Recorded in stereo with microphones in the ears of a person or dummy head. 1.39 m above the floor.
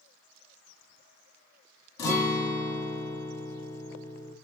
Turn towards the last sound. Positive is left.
turn(degrees=20)  # may be behind; listen again after turning